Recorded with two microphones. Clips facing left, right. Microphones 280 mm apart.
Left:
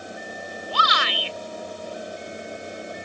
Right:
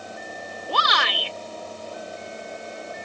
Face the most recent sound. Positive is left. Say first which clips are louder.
# right 2 dB
turn(degrees=-70)  # may be behind; listen again after turning